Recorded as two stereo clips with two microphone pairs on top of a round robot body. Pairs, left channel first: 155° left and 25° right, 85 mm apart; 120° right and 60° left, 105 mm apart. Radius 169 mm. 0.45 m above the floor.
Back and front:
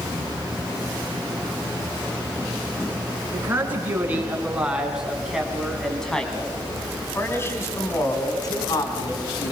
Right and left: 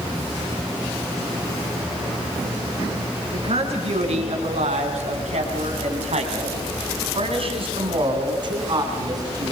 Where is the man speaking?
35° left, 6 m; by 9.5 s 115° left, 5.5 m.